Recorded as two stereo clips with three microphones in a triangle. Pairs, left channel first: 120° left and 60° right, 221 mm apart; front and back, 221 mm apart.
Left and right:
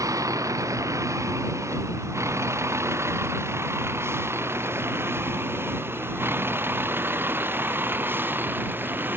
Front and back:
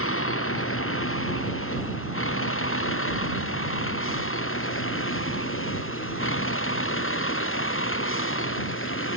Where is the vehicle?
15° left; by 9.2 s 20° left.